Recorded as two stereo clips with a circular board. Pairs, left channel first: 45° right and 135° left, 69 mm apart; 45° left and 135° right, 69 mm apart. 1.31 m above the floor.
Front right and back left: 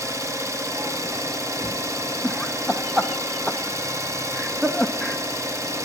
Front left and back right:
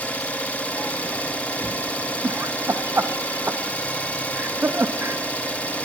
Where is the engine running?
110° left, 1.0 m.